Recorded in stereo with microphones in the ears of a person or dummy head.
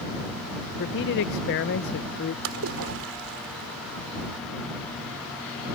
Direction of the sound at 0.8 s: 55° left (ahead or behind).